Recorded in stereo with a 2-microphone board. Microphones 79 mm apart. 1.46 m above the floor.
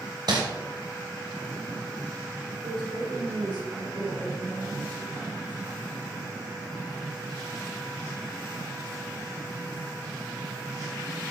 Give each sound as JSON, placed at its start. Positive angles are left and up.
{"t": 0.3, "sound": "crumpling", "side_deg": -65, "distance_m": 2.0}
{"t": 2.6, "sound": "a woman speaking", "side_deg": -80, "distance_m": 4.0}